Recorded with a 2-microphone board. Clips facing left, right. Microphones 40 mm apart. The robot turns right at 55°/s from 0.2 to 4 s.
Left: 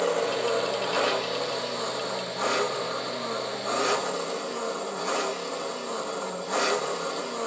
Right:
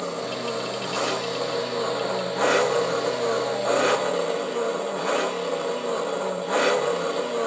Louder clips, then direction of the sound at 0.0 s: Left 3 dB; 110° left.